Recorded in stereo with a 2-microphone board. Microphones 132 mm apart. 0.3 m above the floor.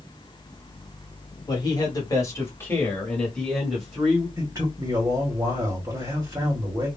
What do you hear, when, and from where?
1.5 s a man speaking: 30° left (ahead or behind), 1.4 m; by 4.3 s 5° right (ahead or behind), 1.5 m
4.4 s a man speaking: 25° right (ahead or behind), 1.7 m